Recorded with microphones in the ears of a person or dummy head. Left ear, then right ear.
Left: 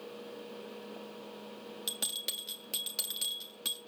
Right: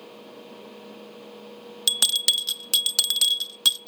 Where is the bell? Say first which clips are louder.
Right 16 dB; 40° right (ahead or behind), 0.6 m.